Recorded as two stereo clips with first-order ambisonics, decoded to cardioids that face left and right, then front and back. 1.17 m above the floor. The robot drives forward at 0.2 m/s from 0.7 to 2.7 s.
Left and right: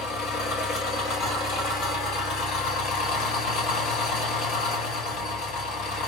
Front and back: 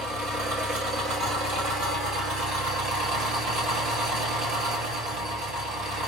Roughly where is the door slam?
No door slam in this recording.